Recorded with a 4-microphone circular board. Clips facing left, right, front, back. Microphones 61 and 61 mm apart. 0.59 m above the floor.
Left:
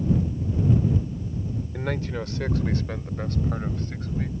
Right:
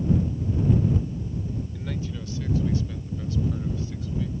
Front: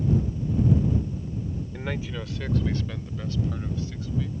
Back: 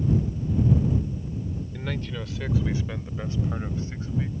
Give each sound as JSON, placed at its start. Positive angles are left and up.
{"t": 1.7, "sound": "a man speaking", "azimuth_deg": 75}